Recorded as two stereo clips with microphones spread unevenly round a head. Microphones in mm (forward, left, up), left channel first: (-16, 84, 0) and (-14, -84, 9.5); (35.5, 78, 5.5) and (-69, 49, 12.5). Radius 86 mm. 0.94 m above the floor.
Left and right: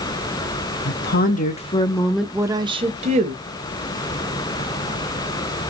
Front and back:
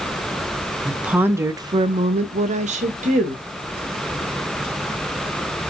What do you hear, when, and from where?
0.8 s a woman speaking: 110° left, 0.8 m; by 3.4 s 135° right, 1.0 m